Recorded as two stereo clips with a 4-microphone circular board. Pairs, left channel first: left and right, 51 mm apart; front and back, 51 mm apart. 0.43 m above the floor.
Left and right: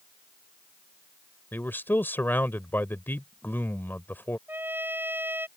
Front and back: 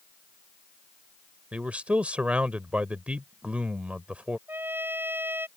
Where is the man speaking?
120° left.